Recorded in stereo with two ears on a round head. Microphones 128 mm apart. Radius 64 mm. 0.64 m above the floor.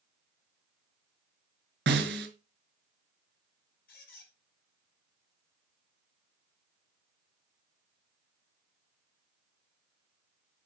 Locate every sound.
1.9 s a snare drum: 85° right, 1.9 m
3.9 s a squeak: 75° left (ahead or behind), 4.5 m